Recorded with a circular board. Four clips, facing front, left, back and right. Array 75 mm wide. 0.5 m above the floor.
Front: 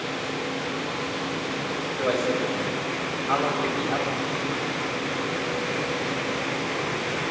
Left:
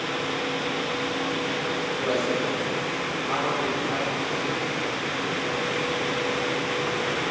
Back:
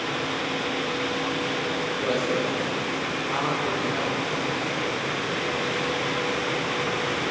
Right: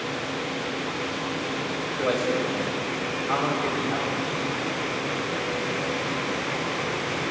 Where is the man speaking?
45° right, 3 m; by 4.1 s 10° right, 3 m.